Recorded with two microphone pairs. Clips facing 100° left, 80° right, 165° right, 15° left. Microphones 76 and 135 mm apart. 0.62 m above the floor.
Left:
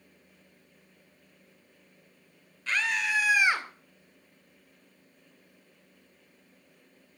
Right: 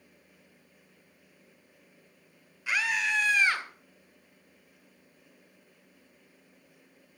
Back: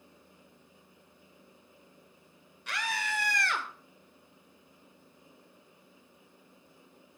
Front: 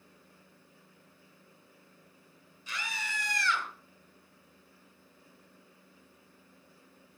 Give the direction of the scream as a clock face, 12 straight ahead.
5 o'clock.